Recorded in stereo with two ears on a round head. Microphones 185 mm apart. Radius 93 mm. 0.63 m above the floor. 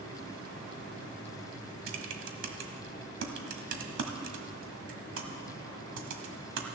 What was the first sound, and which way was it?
Typing on a keyboard, 65° right (ahead or behind).